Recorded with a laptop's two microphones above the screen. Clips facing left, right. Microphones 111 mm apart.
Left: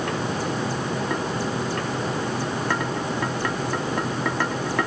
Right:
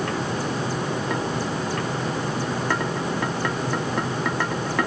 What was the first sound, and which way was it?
Only background noise.